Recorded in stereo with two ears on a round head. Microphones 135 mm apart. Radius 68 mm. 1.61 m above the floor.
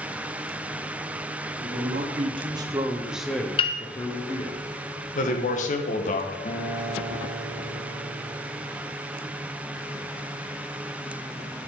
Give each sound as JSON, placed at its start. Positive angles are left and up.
{"t": 1.6, "sound": "a man speaking", "side_deg": -55, "distance_m": 1.3}
{"t": 3.6, "sound": "a piano", "side_deg": 35, "distance_m": 0.5}
{"t": 5.2, "sound": "a man speaking", "side_deg": 55, "distance_m": 1.0}
{"t": 6.5, "sound": "a guitar", "side_deg": 40, "distance_m": 0.7}